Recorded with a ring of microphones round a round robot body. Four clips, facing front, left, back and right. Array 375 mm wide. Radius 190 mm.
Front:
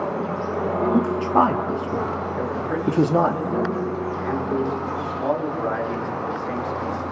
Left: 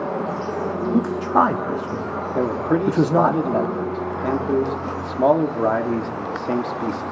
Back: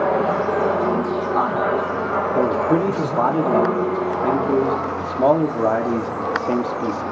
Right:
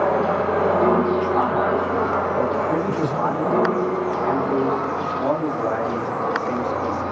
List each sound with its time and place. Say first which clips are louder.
0.9 s a man speaking: even, front 1 dB; 45° left, 1.3 m
2.4 s a man speaking: even, back 11 dB; 145° left, 1.5 m